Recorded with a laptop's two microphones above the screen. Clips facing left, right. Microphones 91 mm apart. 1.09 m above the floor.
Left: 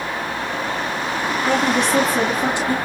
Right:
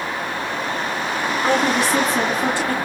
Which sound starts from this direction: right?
A woman speaking, at 1.4 s.